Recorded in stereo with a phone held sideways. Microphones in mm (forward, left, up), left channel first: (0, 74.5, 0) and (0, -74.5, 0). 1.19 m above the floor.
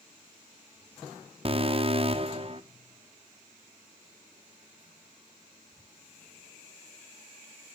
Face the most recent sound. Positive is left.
turn(degrees=-40)  # may be behind; listen again after turning